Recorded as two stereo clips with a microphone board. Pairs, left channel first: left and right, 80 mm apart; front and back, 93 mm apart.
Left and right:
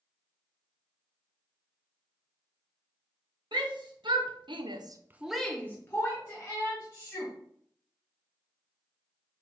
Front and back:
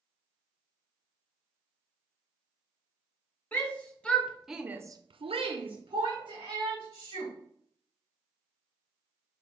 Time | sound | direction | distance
3.5 | a shout | 70° right | 1.7 m